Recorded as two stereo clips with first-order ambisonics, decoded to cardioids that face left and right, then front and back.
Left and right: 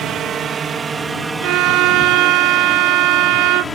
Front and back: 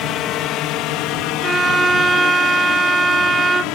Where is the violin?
100° right.